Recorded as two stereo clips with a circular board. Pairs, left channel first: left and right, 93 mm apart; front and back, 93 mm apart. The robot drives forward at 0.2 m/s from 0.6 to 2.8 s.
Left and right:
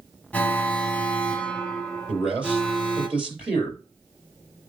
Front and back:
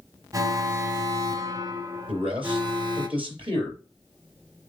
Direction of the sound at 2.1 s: 165° right.